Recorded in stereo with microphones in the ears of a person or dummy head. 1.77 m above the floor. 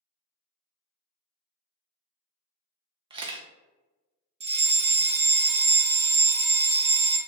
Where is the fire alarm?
30° right (ahead or behind), 0.8 m.